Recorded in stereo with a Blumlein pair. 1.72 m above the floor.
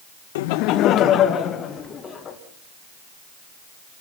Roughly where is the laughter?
Ahead left.